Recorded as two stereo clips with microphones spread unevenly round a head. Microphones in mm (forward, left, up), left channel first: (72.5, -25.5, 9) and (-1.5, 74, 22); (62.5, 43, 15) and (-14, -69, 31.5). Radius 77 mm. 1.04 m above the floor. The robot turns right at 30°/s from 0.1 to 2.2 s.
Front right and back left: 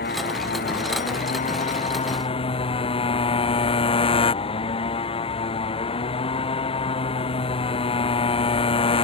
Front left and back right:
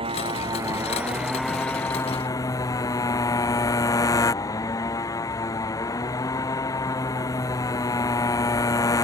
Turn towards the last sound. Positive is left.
turn(degrees=-10)